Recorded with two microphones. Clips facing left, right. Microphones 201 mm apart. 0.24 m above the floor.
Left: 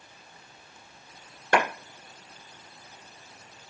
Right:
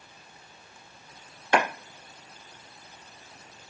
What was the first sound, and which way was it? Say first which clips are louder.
A clap: even; 50° left (ahead or behind).